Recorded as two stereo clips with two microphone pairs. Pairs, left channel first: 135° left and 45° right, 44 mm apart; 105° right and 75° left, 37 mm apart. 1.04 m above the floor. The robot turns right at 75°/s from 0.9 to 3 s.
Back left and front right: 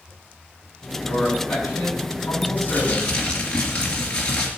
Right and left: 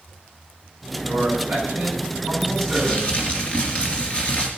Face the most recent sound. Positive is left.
turn(degrees=-155)